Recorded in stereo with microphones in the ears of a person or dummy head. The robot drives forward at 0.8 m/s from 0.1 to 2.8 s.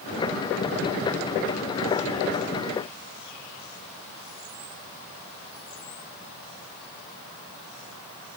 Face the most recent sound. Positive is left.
No sound to turn to.